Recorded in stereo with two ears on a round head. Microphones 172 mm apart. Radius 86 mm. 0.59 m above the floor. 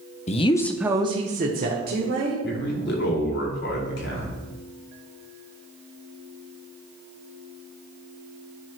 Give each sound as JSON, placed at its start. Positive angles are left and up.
{"t": 0.3, "sound": "a woman speaking", "side_deg": 35, "distance_m": 0.6}
{"t": 2.4, "sound": "a man speaking", "side_deg": 60, "distance_m": 2.0}